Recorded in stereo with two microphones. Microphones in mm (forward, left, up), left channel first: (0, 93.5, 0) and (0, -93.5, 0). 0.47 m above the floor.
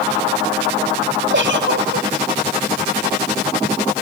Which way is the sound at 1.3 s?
80° right.